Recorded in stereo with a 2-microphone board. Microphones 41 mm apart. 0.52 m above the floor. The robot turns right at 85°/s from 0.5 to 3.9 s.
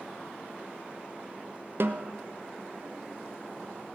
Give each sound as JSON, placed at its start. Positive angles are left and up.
{"t": 1.8, "sound": "a snare drum", "side_deg": -60, "distance_m": 0.7}